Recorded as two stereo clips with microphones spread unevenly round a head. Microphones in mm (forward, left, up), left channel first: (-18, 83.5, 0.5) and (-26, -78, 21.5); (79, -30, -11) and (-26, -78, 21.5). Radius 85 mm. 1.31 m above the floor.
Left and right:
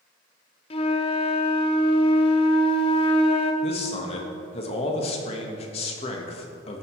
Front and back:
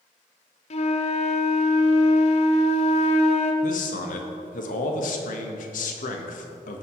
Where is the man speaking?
30° left, 1.4 m.